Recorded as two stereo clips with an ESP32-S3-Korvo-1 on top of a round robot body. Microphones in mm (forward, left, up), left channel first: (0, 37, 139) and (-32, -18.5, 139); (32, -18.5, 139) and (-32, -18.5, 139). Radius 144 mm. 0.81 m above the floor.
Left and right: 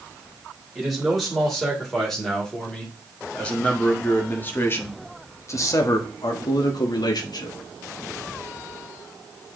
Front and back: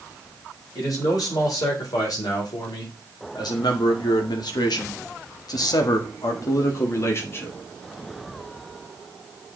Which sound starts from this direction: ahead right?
A man speaking, at 0.8 s.